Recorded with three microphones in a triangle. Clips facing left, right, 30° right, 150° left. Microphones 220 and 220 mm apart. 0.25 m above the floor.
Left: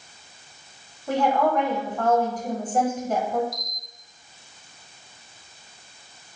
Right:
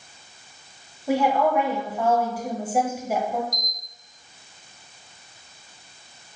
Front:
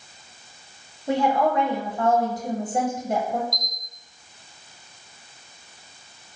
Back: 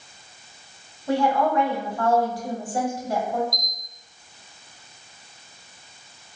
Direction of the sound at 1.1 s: 25° right.